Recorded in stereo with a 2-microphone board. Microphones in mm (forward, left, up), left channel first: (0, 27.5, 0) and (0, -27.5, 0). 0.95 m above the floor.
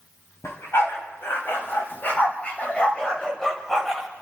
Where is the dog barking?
55° left (ahead or behind), 2.5 m; by 4.1 s 5° left (ahead or behind), 2 m.